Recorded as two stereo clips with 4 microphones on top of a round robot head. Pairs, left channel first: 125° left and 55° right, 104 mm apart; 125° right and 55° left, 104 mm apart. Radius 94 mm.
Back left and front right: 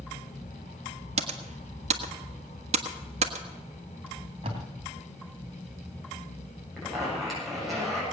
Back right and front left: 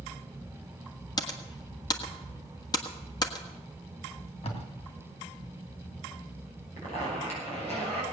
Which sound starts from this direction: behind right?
A zipper, at 6.8 s.